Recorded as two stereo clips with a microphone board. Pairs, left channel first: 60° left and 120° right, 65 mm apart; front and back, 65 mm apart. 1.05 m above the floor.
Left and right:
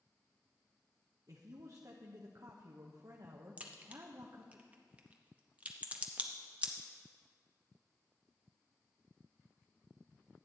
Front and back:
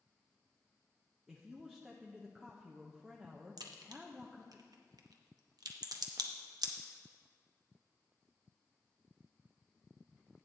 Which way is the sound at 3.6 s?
170° left.